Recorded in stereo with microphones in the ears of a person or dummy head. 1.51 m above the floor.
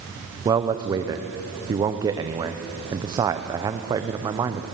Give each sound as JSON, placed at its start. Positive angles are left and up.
{"t": 0.5, "sound": "a man speaking", "side_deg": -20, "distance_m": 0.8}